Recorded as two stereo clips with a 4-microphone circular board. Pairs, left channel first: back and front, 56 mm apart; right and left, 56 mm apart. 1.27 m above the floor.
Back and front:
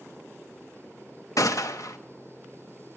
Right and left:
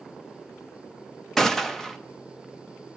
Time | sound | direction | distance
1.4 | a gunshot | 175° right | 1.0 m